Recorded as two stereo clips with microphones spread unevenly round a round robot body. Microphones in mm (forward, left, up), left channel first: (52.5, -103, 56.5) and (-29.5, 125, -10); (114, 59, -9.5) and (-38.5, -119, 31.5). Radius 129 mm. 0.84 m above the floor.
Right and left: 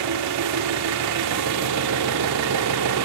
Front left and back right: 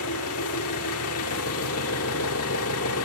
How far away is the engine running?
About 0.9 m.